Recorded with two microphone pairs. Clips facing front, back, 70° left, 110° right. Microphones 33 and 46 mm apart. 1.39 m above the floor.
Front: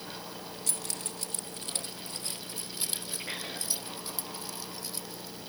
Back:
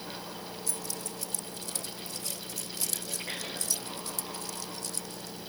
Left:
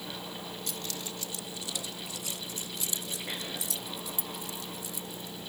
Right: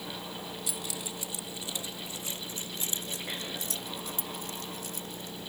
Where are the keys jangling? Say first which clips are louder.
Even, even; 30° right; by 5.4 s 75° right.